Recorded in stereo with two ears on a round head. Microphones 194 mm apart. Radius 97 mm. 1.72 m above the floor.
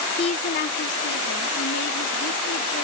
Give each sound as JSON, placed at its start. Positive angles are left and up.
{"t": 0.2, "sound": "a woman speaking", "side_deg": 20}